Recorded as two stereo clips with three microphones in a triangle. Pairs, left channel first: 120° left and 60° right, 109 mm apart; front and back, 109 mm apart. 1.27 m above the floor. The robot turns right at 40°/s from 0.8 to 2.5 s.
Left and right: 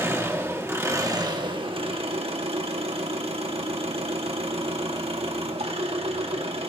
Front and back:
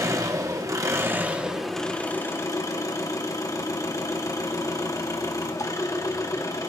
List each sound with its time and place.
0.0 s an engine running: 125° right, 1.7 m; by 6.7 s 55° right, 1.7 m